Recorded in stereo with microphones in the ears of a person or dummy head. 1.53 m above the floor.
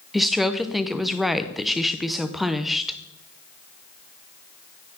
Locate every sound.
0.1 s a woman speaking: centre (ahead or behind), 1.0 m